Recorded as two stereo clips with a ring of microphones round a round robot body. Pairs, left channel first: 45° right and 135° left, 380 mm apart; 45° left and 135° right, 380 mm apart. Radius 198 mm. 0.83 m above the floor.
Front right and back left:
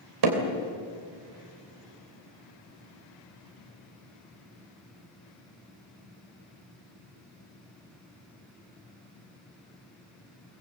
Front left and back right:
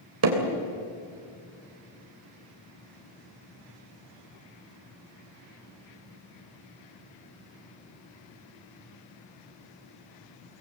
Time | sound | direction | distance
0.2 | hammering | 170° left | 3 m